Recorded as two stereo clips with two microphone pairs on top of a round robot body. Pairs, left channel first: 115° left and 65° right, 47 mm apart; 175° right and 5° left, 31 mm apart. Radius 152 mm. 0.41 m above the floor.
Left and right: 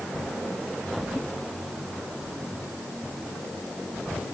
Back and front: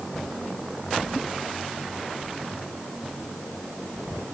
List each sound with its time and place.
Only background noise.